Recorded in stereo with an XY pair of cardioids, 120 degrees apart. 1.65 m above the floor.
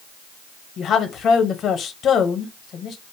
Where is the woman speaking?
55° left, 0.9 m.